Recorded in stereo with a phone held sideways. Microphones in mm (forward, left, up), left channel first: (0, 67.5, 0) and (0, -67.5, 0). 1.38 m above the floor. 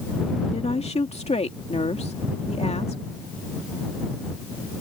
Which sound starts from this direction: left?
A woman speaking, at 0.5 s.